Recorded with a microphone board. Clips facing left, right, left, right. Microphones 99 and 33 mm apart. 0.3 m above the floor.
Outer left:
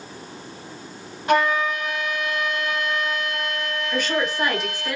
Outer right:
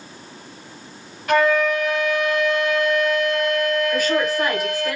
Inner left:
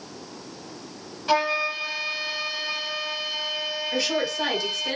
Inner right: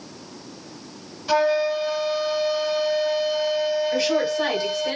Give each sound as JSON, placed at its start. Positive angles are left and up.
{"t": 1.3, "sound": "a flute", "side_deg": 25, "distance_m": 2.0}
{"t": 3.9, "sound": "a woman speaking", "side_deg": -5, "distance_m": 1.5}